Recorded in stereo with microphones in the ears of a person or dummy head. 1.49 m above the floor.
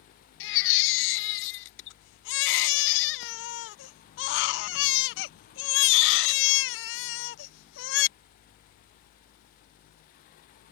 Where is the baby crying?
55° left (ahead or behind).